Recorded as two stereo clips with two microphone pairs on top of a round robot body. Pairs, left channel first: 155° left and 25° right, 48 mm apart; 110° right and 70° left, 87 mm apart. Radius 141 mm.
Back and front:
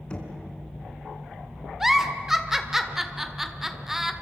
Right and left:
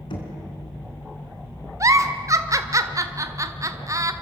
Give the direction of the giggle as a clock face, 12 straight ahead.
10 o'clock.